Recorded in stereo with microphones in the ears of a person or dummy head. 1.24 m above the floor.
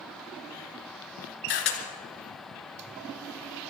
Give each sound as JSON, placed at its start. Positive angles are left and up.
{"t": 1.5, "sound": "a camera shutter", "side_deg": 65, "distance_m": 3.5}